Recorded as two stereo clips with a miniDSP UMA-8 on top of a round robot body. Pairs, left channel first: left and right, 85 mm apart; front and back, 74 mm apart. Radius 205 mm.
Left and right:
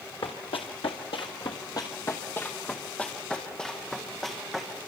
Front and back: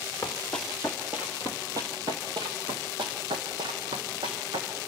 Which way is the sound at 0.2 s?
70° left.